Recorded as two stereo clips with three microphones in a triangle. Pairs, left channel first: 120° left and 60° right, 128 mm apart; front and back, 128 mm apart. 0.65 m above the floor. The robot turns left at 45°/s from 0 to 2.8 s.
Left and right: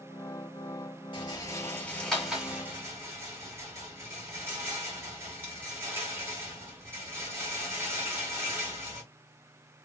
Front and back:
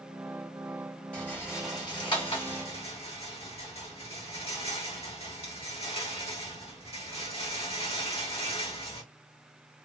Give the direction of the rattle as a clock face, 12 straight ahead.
9 o'clock.